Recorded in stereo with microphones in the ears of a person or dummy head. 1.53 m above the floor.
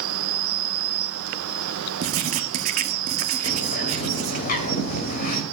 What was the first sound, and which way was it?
An insect, 75° right (ahead or behind).